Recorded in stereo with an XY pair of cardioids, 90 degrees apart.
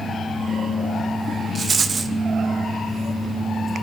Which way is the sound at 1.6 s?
40° right.